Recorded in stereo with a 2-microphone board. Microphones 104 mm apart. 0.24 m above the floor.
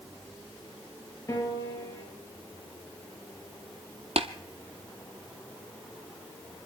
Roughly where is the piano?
Left.